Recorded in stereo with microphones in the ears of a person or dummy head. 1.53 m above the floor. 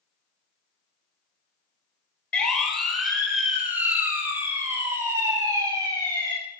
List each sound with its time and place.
2.3 s a siren: 5° left (ahead or behind), 5 m; by 6.3 s 20° right (ahead or behind), 9 m